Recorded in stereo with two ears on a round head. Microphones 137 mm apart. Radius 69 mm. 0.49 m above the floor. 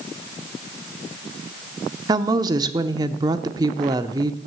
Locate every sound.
2.1 s a woman speaking: 25° right (ahead or behind), 0.7 m